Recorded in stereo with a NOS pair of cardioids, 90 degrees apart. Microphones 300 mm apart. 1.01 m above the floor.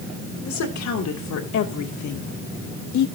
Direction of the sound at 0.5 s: 60° left.